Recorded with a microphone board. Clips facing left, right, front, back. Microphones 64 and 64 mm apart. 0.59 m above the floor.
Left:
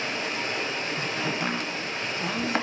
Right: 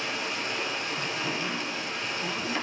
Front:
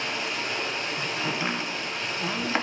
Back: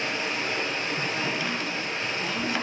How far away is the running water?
About 1.2 m.